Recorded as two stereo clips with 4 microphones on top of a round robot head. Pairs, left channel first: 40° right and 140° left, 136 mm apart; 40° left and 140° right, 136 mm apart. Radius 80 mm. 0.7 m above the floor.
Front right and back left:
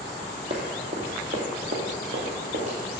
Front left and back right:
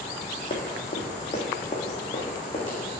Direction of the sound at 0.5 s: 90° left.